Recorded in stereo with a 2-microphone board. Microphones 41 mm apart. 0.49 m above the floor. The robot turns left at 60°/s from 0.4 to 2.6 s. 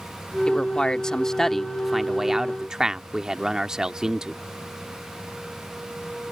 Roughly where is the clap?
I don't hear a clap.